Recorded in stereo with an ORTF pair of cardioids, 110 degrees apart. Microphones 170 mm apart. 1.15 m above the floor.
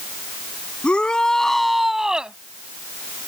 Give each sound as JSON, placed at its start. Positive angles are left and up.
{"t": 0.8, "sound": "a shout", "azimuth_deg": 5}